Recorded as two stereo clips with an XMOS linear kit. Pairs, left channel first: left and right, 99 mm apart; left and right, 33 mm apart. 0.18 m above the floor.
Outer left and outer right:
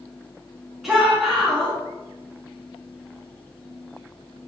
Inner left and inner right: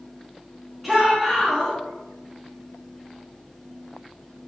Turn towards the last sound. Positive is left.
turn(degrees=0)  # may be behind; listen again after turning